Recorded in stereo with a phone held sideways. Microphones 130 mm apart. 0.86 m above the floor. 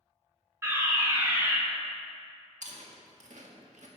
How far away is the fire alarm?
About 2.5 m.